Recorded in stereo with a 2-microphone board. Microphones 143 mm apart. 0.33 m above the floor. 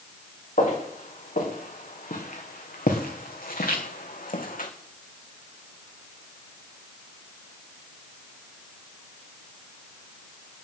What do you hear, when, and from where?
0.6 s footsteps: 70° left (ahead or behind), 4 m